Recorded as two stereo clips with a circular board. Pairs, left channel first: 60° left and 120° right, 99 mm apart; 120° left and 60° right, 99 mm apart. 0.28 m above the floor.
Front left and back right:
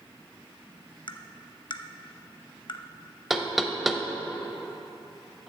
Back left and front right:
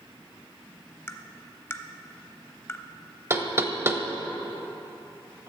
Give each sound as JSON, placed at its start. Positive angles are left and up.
{"t": 1.1, "sound": "tapping", "azimuth_deg": 65, "distance_m": 0.5}
{"t": 3.3, "sound": "knocking", "azimuth_deg": -35, "distance_m": 0.6}